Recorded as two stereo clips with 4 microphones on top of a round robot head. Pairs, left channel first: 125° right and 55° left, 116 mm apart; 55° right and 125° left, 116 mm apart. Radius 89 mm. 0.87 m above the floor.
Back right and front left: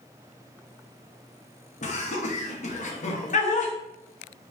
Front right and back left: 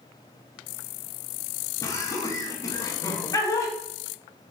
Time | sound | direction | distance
1.8 | laughter | 120° right | 1.0 m